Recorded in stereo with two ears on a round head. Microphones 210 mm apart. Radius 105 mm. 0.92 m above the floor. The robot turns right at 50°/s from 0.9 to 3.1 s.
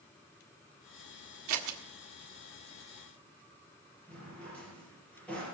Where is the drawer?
5° left (ahead or behind), 6 m.